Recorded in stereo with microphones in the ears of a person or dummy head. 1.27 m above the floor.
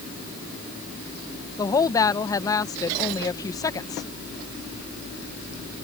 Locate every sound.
1.6 s a woman speaking: 15° left (ahead or behind)